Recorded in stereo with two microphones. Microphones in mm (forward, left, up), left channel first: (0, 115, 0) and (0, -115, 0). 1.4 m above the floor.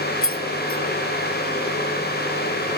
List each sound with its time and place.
0.2 s keys jangling: 65° left (ahead or behind), 0.6 m